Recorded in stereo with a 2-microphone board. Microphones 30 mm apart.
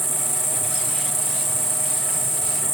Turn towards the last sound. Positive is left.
turn(degrees=0)  # may be behind; listen again after turning